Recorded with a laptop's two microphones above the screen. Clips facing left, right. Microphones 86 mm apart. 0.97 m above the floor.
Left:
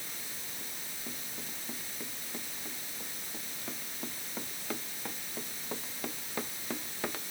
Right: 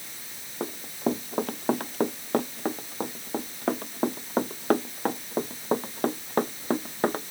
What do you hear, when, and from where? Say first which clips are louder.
0.6 s running footsteps: right 22 dB; 75° right (ahead or behind); by 7.3 s 40° right (ahead or behind)